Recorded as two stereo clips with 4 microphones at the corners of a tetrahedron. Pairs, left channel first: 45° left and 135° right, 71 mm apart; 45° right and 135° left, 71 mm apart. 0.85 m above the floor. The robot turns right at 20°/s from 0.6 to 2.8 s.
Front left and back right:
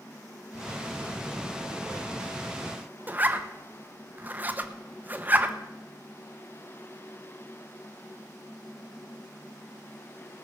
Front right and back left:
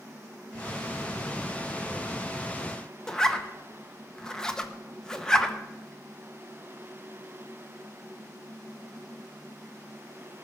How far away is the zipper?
About 1.0 m.